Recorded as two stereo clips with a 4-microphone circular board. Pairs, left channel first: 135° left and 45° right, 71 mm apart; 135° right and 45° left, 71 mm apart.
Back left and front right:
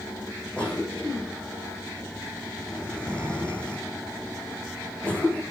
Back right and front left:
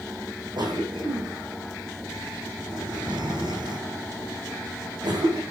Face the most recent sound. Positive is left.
turn(degrees=60)